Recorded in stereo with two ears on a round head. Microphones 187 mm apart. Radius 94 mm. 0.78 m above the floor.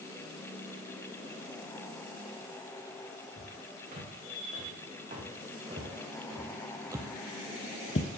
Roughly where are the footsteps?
Right.